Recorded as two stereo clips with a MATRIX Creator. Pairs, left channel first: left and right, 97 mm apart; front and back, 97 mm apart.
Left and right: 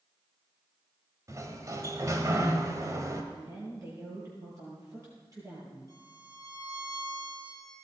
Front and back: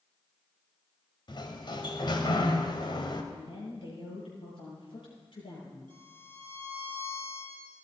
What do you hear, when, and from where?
1.3 s a sliding door: 35° right, 1.8 m
3.3 s a woman speaking: 35° right, 10 m
5.9 s a violin: 140° right, 6.5 m